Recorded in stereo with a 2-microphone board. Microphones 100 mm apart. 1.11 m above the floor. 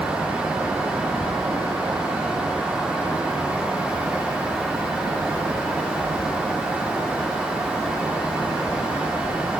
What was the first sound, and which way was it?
Only background noise.